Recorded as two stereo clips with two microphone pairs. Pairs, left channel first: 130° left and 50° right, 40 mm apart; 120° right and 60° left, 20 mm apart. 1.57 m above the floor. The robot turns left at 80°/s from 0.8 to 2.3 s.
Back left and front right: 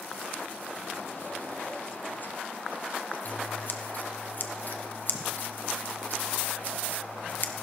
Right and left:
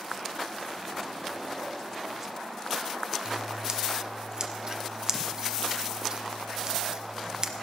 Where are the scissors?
105° left, 0.8 m.